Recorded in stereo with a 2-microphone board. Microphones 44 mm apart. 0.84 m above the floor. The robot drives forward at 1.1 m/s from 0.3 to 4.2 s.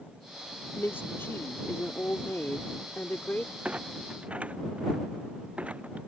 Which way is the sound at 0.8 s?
55° left (ahead or behind).